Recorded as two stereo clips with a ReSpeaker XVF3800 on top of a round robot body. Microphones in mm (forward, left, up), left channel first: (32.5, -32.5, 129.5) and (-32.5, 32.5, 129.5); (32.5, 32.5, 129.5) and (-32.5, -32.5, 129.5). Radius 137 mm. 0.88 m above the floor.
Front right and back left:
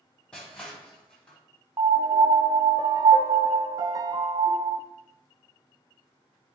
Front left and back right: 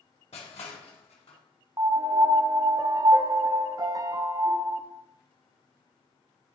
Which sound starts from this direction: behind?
A piano, at 1.8 s.